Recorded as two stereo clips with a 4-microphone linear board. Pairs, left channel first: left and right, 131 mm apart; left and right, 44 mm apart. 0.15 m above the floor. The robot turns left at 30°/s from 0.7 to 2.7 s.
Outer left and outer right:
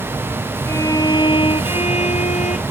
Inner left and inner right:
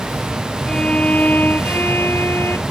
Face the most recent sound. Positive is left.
turn(degrees=95)